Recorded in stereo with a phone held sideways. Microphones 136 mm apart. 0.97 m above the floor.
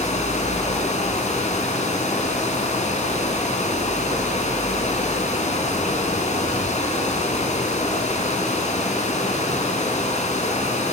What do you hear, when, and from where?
0.0 s running water: 60° left (ahead or behind), 3.5 m